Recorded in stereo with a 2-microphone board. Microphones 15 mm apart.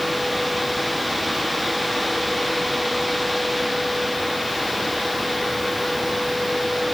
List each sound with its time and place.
Only background noise.